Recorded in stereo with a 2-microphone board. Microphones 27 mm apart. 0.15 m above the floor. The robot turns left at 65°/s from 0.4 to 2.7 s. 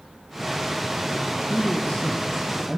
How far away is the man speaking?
About 6 m.